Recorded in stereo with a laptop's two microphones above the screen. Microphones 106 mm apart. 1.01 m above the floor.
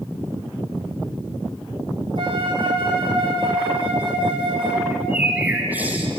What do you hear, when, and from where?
2.2 s a flute: 50° right (ahead or behind), 2.0 m
4.9 s a bird: 15° right (ahead or behind), 4 m